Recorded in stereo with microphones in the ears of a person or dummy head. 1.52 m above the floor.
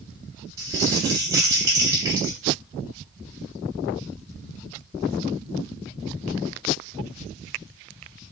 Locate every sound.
0.6 s crumpling: 20° right (ahead or behind), 1.6 m